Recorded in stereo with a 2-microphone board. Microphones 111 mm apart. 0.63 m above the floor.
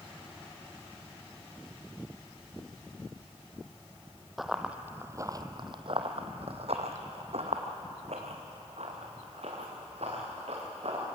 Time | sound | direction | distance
4.4 | running footsteps | centre (ahead or behind) | 1.3 m